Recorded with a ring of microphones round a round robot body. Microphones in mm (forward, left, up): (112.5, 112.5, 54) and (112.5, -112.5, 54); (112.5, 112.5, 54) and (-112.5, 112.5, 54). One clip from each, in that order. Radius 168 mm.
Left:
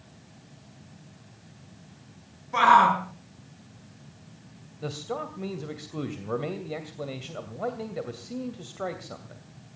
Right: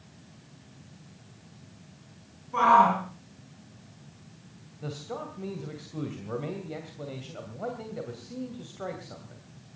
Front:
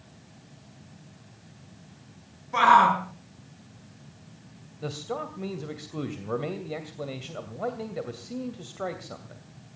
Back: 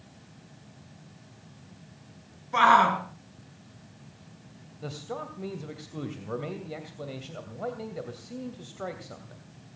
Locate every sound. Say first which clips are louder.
2.5 s a shout: left 2 dB, front 2 dB; 120° left, 5.5 m
4.8 s a man speaking: left 4 dB, front 4 dB; 65° left, 2.5 m